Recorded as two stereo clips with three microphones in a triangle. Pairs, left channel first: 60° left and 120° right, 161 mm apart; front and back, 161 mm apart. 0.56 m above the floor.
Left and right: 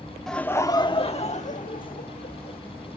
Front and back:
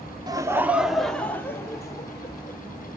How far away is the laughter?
About 1.0 m.